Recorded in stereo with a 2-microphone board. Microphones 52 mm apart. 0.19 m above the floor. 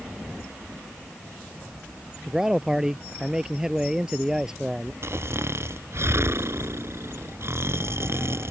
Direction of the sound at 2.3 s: 10° right (ahead or behind).